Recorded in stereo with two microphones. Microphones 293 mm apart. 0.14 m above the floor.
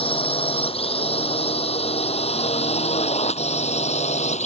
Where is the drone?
20° left (ahead or behind); by 4.5 s 25° left (ahead or behind).